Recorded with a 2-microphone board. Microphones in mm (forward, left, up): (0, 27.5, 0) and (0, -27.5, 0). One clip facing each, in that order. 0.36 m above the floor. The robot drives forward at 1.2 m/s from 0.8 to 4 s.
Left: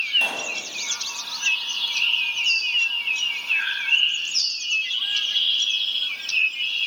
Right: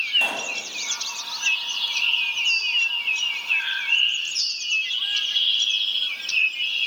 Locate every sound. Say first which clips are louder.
0.1 s a pop: even; 5° right (ahead or behind), 2 m
2.0 s a bird: even; 80° left, 9 m; by 4.5 s 85° left, 9 m